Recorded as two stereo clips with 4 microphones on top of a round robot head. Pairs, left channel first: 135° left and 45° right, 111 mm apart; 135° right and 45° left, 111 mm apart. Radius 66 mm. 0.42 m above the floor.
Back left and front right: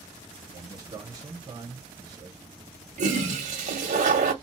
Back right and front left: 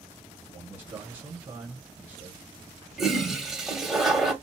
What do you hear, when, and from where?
0.5 s a man speaking: 20° right, 1.3 m
3.0 s a toilet flushing: 45° right, 0.9 m